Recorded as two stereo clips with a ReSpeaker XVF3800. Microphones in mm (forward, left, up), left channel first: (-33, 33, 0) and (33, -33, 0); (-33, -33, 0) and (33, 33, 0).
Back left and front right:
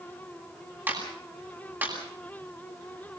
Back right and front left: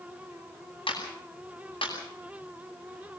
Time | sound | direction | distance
0.9 | a clap | 115° right | 9.5 m